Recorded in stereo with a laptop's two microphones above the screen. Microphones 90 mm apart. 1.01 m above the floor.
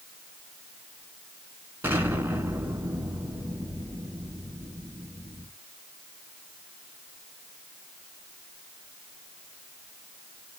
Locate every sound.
1.8 s an explosion: 25° right (ahead or behind), 1.6 m